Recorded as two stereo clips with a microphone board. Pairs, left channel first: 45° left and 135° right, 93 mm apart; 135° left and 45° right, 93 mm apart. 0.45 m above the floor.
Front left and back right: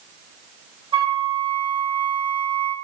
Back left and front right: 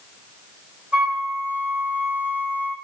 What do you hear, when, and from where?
0.9 s a flute: 125° right, 1.1 m